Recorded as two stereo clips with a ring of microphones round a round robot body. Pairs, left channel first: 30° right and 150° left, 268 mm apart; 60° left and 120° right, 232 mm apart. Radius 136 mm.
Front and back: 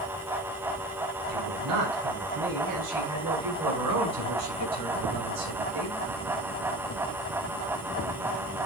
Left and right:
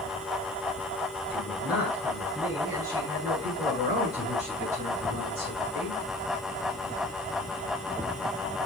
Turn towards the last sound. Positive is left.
turn(degrees=180)